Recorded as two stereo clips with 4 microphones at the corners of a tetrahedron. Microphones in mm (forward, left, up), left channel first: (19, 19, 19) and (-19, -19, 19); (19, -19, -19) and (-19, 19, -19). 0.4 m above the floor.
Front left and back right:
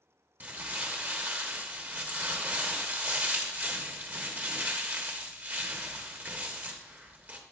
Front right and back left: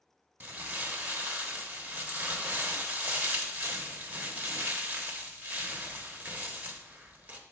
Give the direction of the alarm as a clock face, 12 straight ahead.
No alarm in this recording.